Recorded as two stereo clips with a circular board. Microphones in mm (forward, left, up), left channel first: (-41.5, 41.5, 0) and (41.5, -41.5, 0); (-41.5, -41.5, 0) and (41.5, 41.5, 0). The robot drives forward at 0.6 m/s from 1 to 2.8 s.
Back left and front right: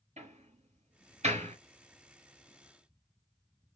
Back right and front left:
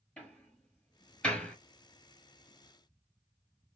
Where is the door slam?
55° right, 4.5 m.